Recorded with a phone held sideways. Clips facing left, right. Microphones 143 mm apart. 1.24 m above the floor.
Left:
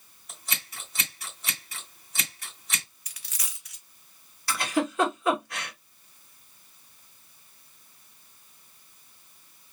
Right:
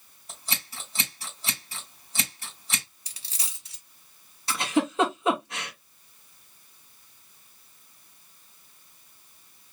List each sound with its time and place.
0.3 s scissors: 30° right (ahead or behind), 2.5 m
3.1 s a dropped coin: 30° right (ahead or behind), 0.8 m
4.5 s a giggle: 25° right (ahead or behind), 1.8 m